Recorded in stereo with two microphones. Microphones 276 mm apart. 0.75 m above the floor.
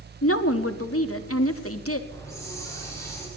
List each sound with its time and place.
0.2 s a woman speaking: 55° left (ahead or behind), 1.0 m
2.1 s a hiss: 10° left (ahead or behind), 5.5 m